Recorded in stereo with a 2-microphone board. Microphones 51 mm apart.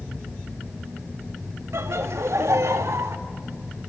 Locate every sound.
1.7 s laughter: 60° right (ahead or behind), 1.3 m; by 3.2 s 65° right (ahead or behind), 1.5 m